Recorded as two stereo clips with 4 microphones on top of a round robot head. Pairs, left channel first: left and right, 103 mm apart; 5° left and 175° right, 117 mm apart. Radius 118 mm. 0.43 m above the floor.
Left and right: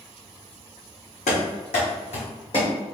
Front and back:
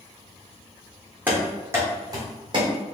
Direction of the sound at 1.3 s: 110° left.